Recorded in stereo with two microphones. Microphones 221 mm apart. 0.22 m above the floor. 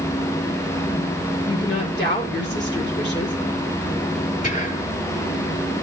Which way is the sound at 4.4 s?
35° left (ahead or behind).